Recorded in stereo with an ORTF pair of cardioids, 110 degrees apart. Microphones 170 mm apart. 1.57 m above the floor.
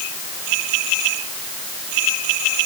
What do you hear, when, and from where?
Only background noise.